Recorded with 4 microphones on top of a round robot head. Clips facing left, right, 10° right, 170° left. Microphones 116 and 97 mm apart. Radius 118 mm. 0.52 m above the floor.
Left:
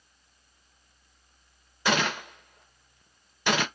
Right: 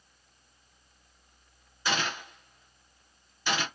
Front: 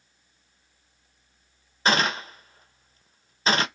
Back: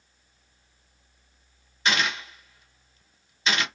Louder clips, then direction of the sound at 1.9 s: Left 5 dB, front 4 dB; 45° left.